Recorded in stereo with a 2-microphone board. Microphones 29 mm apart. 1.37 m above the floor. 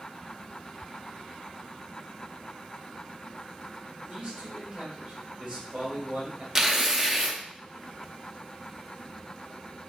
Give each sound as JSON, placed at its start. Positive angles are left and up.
{"t": 4.1, "sound": "a man speaking", "side_deg": -50, "distance_m": 2.0}
{"t": 6.5, "sound": "tearing paper", "side_deg": -15, "distance_m": 0.5}